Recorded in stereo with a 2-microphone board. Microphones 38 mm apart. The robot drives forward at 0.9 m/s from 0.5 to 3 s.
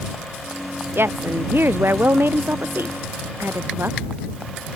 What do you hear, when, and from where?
0.9 s a woman speaking: 75° right (ahead or behind); by 4.0 s 80° right